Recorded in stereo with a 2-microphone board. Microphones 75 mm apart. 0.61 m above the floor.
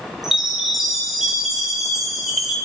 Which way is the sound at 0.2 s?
5° right (ahead or behind).